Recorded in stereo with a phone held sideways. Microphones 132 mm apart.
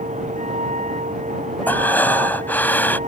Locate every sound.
0.0 s a vehicle: 70° right (ahead or behind)
1.7 s breathing: 15° left (ahead or behind)